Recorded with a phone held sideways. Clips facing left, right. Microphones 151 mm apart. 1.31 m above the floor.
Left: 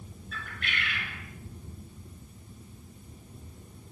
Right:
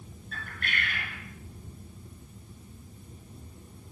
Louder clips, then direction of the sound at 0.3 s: Right 1 dB; 45° right (ahead or behind).